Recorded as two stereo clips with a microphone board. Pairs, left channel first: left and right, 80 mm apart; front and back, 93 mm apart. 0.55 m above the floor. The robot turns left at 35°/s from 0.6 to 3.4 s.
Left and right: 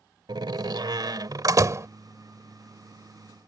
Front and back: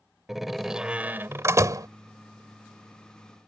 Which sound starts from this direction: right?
A door slam, at 0.3 s.